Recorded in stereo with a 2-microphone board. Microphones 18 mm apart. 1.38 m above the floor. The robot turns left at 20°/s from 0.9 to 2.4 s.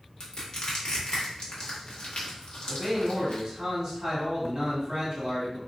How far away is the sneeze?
I don't hear a sneeze.